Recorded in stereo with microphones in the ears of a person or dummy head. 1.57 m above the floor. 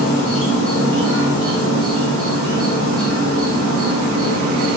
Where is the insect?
70° right (ahead or behind), 0.7 m.